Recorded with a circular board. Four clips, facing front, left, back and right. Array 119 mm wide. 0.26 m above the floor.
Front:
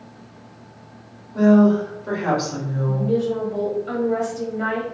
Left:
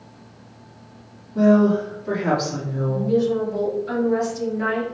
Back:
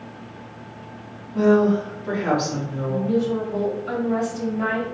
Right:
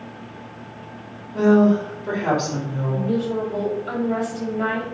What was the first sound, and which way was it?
A woman speaking, 55° right.